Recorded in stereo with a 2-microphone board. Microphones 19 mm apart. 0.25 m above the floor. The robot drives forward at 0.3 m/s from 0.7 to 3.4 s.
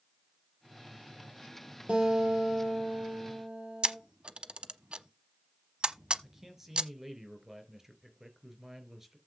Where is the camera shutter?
55° right (ahead or behind), 0.9 m.